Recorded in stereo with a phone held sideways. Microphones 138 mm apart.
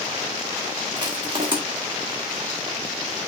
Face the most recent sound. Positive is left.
turn(degrees=-35)  # may be behind; listen again after turning